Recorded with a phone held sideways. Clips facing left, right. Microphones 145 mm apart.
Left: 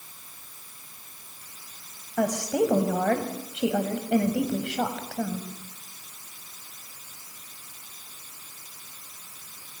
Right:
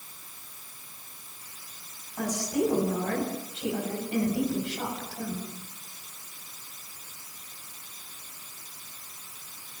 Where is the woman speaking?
80° left, 5.5 m.